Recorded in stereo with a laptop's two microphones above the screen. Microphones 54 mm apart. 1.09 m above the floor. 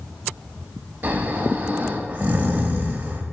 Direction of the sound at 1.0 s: 30° right (ahead or behind).